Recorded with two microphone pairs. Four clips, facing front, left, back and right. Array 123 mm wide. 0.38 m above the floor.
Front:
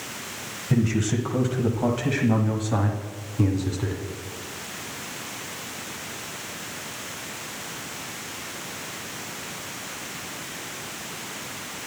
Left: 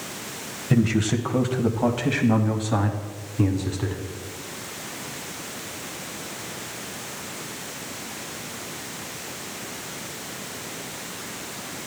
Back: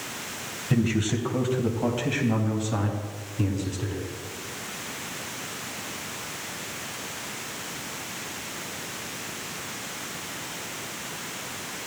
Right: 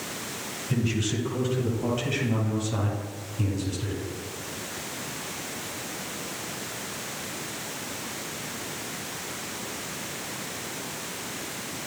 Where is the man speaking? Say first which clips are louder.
Left 7 dB, front 1 dB; 90° left, 2 m; by 4.0 s 55° left, 3.5 m.